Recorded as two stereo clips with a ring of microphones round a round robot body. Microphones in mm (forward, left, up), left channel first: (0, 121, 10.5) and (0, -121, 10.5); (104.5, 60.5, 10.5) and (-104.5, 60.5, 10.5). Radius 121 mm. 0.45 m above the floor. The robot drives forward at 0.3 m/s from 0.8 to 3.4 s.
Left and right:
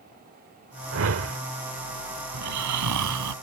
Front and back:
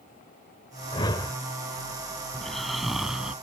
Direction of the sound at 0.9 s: 65° right.